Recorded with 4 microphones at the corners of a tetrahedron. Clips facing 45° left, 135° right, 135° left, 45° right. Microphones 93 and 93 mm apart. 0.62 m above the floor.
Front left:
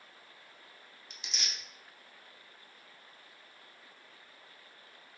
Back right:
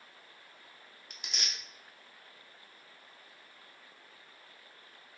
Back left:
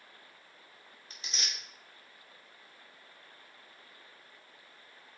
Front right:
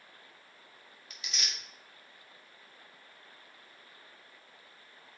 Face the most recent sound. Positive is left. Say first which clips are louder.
# back right 1 dB, even
turn(degrees=-170)